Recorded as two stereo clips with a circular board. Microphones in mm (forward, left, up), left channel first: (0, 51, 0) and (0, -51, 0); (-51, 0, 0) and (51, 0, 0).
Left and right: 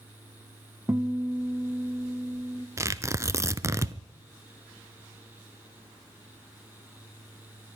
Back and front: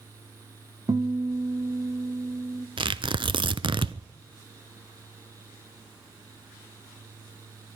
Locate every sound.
0.9 s a guitar: 30° right, 0.5 m
2.8 s tearing paper: 30° right, 0.6 m